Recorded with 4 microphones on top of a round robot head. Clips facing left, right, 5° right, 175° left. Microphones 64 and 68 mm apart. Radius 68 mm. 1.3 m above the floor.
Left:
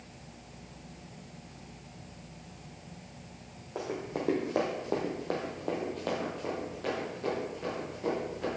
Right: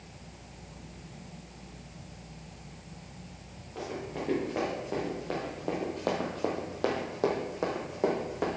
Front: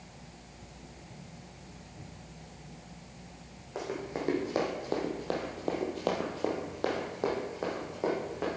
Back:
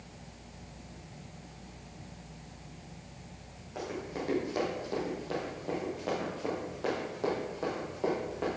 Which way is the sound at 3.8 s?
60° left.